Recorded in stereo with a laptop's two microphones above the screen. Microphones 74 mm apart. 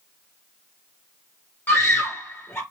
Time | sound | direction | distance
1.7 | a scream | 30° left (ahead or behind) | 1.0 m